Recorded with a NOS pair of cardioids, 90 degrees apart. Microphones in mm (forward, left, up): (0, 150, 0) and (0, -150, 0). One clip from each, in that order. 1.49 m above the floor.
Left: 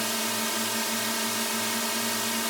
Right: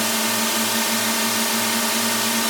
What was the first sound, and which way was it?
A drone, 50° right.